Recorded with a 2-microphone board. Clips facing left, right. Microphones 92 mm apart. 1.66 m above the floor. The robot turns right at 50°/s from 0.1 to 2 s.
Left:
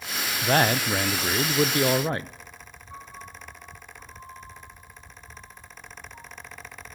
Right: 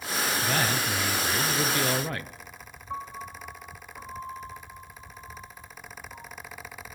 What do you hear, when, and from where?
0.4 s a man speaking: 60° left, 0.5 m; by 2.3 s 140° left, 0.5 m
2.9 s a piano: 70° right (ahead or behind), 3 m